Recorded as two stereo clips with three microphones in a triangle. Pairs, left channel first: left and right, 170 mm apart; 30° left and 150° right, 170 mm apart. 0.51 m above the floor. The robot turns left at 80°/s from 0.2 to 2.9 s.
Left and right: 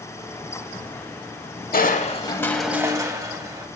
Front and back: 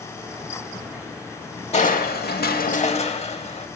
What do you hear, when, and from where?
1.7 s crushing: 70° left, 0.7 m; by 3.7 s 20° right, 0.7 m